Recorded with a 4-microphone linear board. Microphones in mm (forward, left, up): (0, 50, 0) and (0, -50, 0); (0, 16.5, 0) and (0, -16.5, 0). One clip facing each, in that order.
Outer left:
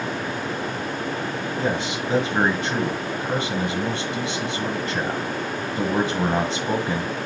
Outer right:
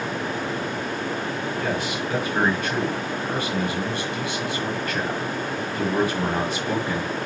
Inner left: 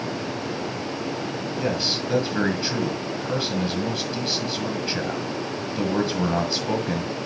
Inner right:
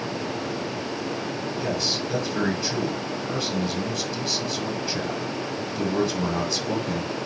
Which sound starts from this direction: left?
A man speaking, at 1.6 s.